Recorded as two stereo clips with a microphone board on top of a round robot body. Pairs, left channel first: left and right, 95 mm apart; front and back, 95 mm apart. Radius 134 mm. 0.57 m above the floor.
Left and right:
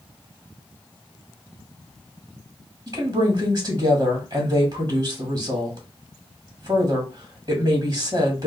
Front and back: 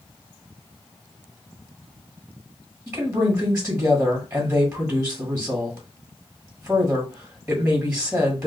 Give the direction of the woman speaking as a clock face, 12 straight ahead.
4 o'clock.